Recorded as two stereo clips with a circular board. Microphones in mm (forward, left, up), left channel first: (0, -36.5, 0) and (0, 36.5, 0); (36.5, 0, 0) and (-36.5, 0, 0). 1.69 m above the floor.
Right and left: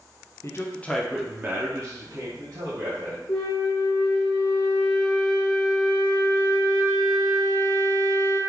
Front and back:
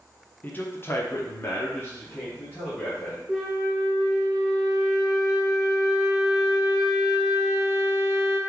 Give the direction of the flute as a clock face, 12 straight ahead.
3 o'clock.